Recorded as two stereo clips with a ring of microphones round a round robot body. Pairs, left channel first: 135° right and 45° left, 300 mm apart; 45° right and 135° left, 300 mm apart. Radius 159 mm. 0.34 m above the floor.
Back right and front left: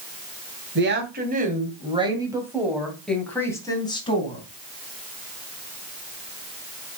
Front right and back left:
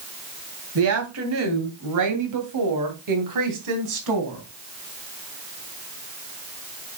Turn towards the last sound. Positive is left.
turn(degrees=155)